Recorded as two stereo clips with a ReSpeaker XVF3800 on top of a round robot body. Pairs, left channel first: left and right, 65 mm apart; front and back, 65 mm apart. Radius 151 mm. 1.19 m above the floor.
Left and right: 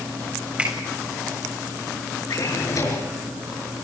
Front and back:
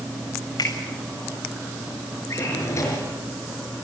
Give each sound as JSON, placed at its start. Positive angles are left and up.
{"t": 0.6, "sound": "a finger snap", "azimuth_deg": -20, "distance_m": 7.5}
{"t": 2.3, "sound": "a drawer", "azimuth_deg": 50, "distance_m": 5.5}